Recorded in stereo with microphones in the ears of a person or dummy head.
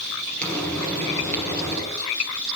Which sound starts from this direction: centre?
Frying, at 0.4 s.